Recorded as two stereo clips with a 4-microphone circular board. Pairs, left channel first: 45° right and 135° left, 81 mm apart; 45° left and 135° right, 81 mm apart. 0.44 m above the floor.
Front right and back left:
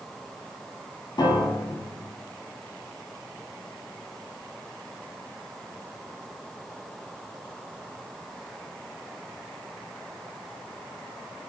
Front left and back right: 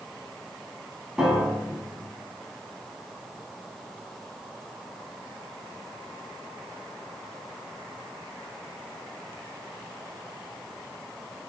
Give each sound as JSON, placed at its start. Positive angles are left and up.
{"t": 1.2, "sound": "a piano", "azimuth_deg": -55, "distance_m": 0.6}